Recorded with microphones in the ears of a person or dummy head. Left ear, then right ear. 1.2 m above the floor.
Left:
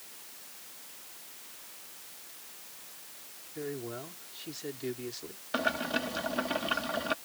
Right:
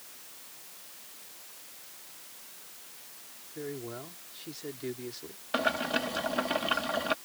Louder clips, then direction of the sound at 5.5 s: Right 2 dB; 15° right (ahead or behind).